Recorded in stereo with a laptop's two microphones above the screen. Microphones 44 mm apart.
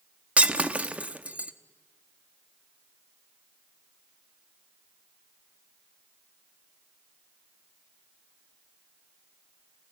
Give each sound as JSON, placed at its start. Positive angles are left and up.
{"t": 0.4, "sound": "breaking glass", "side_deg": -30, "distance_m": 0.7}